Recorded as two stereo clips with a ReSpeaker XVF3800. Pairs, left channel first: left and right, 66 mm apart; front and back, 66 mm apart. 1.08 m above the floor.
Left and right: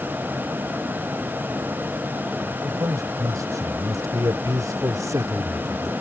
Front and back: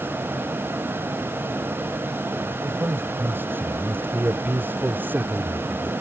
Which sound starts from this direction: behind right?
A man speaking, at 2.6 s.